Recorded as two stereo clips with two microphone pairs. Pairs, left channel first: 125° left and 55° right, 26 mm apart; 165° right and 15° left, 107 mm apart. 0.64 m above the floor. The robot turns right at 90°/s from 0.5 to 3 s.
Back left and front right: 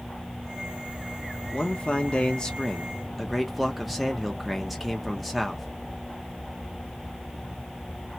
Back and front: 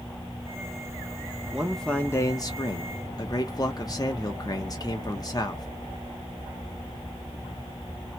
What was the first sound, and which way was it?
A man speaking, 90° left.